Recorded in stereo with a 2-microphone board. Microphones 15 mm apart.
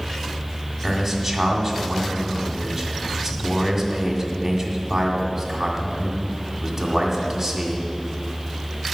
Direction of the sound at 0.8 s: 15° right (ahead or behind).